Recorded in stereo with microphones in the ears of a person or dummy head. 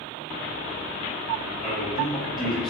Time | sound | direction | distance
1.6 | a man speaking | centre (ahead or behind) | 1.1 m